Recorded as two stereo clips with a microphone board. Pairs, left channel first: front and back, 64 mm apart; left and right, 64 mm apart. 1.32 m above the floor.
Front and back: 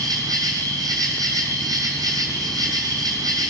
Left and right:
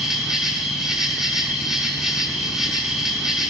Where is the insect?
170° right, 6 m.